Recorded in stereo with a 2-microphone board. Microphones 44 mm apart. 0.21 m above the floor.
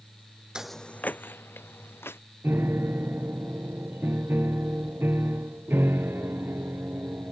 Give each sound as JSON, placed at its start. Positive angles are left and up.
{"t": 0.6, "sound": "footsteps", "side_deg": -20}
{"t": 2.4, "sound": "a piano", "side_deg": -65}